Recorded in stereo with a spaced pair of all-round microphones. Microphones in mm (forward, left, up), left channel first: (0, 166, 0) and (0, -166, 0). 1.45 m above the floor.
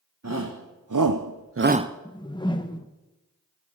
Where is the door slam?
I don't hear a door slam.